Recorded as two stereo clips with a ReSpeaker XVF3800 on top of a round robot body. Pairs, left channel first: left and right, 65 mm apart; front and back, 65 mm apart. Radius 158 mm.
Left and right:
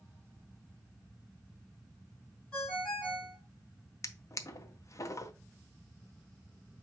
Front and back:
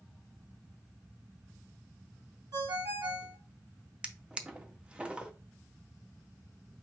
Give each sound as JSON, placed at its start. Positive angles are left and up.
{"t": 2.5, "sound": "a ringtone", "azimuth_deg": 165, "distance_m": 2.5}
{"t": 4.0, "sound": "a drawer", "azimuth_deg": 110, "distance_m": 0.8}